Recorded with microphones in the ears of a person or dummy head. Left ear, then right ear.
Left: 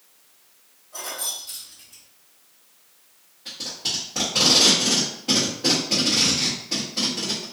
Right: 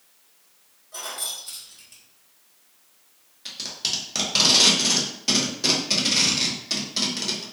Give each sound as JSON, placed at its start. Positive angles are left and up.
{"t": 0.9, "sound": "keys jangling", "side_deg": -65, "distance_m": 1.5}
{"t": 3.5, "sound": "tape being pulled", "side_deg": -75, "distance_m": 1.2}